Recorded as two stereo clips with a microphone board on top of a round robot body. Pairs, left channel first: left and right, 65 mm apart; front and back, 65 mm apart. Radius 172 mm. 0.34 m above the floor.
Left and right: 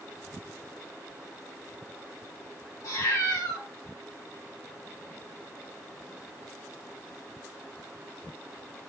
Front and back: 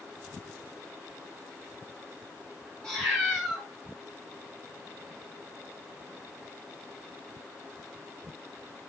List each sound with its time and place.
2.8 s a cat meowing: 85° left, 1.8 m